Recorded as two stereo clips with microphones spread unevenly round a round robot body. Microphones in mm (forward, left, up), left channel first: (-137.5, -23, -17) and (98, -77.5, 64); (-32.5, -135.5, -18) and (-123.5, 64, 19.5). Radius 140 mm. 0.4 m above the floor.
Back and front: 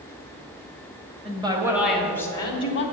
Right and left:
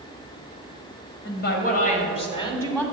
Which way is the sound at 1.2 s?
90° right.